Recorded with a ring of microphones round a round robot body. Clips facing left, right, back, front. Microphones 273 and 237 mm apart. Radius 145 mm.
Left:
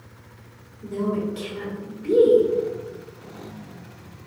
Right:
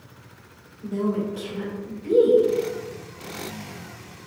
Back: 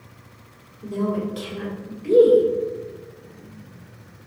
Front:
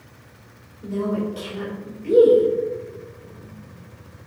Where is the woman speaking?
130° left, 1.9 m.